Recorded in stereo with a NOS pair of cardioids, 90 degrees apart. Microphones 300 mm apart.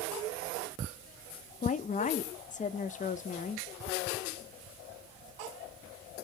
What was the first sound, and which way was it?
A woman speaking, 25° left.